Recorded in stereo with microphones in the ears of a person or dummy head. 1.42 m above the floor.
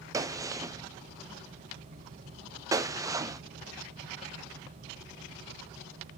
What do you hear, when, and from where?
0.1 s a gunshot: 20° right (ahead or behind), 0.6 m